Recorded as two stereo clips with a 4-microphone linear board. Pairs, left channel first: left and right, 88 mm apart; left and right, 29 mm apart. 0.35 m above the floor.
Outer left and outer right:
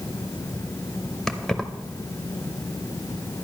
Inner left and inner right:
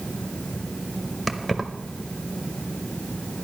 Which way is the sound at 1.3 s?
5° left (ahead or behind).